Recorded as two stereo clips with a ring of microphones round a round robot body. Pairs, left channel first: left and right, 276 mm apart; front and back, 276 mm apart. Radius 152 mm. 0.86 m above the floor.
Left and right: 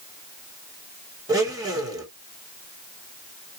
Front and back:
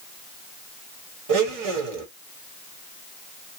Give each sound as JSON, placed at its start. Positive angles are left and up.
{"t": 1.3, "sound": "a blender", "azimuth_deg": -170, "distance_m": 2.0}